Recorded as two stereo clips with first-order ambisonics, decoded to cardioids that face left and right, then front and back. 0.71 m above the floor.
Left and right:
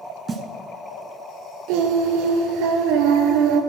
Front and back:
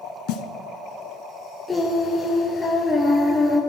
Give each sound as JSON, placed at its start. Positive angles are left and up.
{"t": 0.3, "sound": "a snare drum", "azimuth_deg": -15, "distance_m": 1.4}
{"t": 1.7, "sound": "singing", "azimuth_deg": -80, "distance_m": 1.9}